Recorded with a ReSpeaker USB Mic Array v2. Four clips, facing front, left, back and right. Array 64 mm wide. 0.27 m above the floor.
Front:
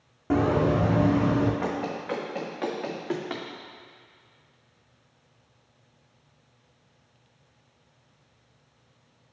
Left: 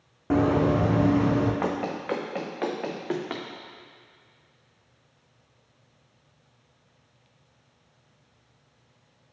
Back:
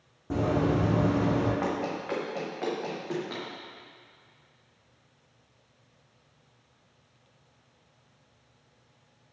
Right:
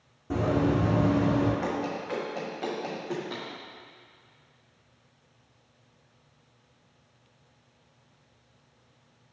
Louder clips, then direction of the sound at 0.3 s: Left 4 dB, front 4 dB; 55° left.